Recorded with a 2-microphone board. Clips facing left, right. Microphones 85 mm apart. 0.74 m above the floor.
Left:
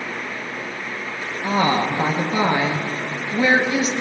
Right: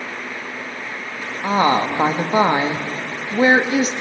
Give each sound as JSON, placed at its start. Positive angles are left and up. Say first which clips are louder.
{"t": 1.4, "sound": "a woman speaking", "louder": "right 3 dB", "side_deg": -35, "distance_m": 0.6}